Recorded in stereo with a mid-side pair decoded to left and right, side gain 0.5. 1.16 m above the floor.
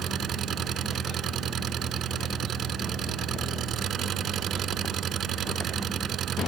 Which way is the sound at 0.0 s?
55° right.